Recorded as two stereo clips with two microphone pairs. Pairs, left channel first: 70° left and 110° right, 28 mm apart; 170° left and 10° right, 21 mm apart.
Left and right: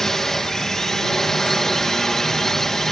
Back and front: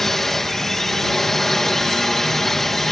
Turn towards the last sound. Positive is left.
turn(degrees=120)